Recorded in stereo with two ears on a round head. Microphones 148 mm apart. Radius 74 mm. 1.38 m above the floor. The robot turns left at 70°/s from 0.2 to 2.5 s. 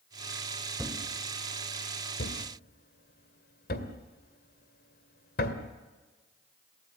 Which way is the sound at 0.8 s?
10° right (ahead or behind).